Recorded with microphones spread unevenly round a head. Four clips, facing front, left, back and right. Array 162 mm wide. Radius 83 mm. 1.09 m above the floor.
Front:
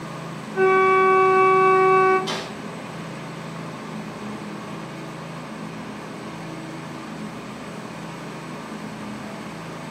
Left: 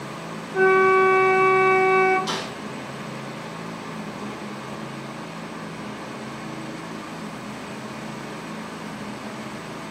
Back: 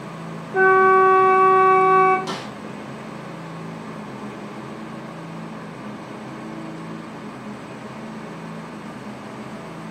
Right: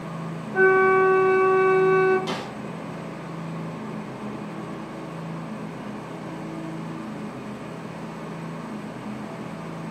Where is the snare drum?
125° right, 0.7 m.